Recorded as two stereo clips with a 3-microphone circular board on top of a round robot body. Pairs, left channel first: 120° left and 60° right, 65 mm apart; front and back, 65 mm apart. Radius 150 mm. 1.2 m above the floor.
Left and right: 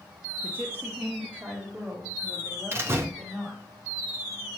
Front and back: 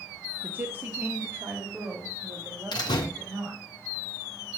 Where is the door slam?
5° right, 0.7 m.